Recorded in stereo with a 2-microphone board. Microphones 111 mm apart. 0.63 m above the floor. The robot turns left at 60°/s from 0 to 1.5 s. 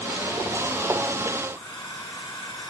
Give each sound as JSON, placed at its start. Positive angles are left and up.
{"t": 1.5, "sound": "a hair dryer", "side_deg": 40, "distance_m": 7.0}